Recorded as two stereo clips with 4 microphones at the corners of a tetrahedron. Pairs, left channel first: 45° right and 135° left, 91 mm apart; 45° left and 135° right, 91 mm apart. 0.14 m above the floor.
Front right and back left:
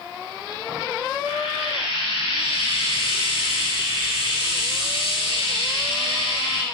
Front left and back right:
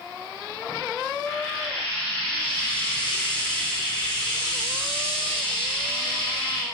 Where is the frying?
35° right, 5 m.